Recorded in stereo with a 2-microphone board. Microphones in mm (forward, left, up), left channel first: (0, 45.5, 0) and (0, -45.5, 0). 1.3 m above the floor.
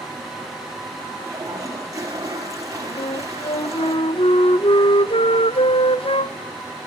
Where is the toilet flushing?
35° right (ahead or behind), 5.5 m.